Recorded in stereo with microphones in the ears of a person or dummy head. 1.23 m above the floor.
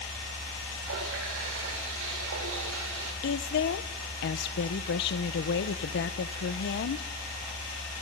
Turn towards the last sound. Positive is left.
turn(degrees=60)  # may be behind; listen again after turning